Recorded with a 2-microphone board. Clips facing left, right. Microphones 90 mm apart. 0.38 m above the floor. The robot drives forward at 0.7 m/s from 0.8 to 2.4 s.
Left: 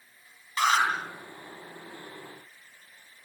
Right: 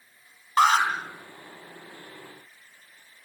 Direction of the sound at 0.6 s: 55° right (ahead or behind).